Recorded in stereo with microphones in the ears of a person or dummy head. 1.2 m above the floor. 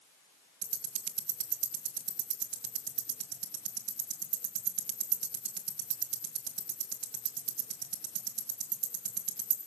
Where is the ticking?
60° right (ahead or behind), 1.6 m.